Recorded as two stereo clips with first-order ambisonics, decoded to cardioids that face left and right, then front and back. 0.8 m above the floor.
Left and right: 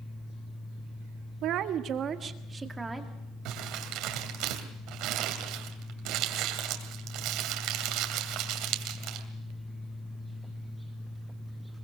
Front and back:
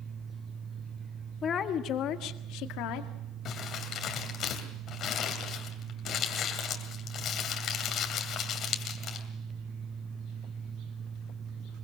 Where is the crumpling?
55° right, 2.5 m.